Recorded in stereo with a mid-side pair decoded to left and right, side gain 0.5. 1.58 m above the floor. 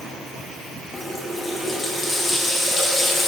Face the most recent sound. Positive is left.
turn(degrees=10)